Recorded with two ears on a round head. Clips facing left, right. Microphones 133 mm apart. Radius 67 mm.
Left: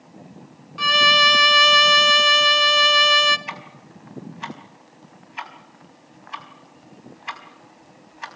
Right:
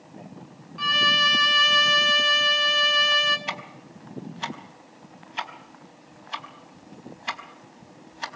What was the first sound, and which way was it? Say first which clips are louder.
A violin: left 7 dB; 60° left (ahead or behind).